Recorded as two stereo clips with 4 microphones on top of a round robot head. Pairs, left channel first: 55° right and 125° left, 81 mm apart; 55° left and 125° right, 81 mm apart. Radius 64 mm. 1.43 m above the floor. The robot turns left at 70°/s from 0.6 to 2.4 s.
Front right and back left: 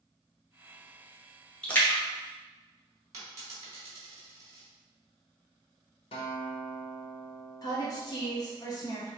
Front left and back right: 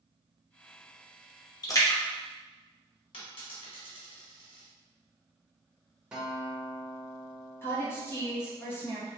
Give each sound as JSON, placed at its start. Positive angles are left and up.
{"t": 1.6, "sound": "a splash", "azimuth_deg": 20, "distance_m": 0.9}
{"t": 3.1, "sound": "a dropped coin", "azimuth_deg": 75, "distance_m": 1.3}
{"t": 6.1, "sound": "a guitar", "azimuth_deg": -45, "distance_m": 0.6}
{"t": 7.6, "sound": "a woman speaking", "azimuth_deg": -5, "distance_m": 0.9}